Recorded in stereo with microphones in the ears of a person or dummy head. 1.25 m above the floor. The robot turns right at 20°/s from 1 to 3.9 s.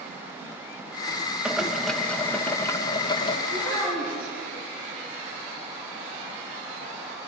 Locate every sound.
1.4 s boiling: 5° right, 1.4 m; by 3.4 s 35° left, 1.4 m
3.5 s a child speaking: 10° left (ahead or behind), 7.5 m; by 4.3 s 20° left (ahead or behind), 7.5 m